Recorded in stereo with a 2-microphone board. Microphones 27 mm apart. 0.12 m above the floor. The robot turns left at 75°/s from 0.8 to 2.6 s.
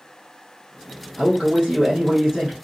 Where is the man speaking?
45° right, 1.2 m; by 2.5 s 145° right, 1.2 m.